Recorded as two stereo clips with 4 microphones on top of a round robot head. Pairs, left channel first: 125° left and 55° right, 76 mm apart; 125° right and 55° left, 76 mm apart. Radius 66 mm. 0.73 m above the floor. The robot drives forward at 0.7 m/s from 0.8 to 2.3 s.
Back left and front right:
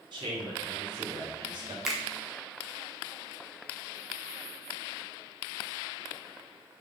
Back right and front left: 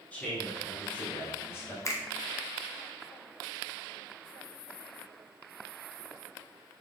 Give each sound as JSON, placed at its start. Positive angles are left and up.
{"t": 0.1, "sound": "a man speaking", "azimuth_deg": -55, "distance_m": 2.0}
{"t": 1.9, "sound": "a finger snap", "azimuth_deg": -135, "distance_m": 0.9}